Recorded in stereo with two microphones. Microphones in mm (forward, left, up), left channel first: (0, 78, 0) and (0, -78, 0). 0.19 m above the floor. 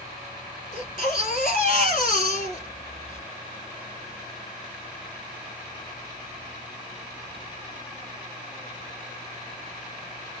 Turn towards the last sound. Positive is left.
turn(degrees=55)  # may be behind; listen again after turning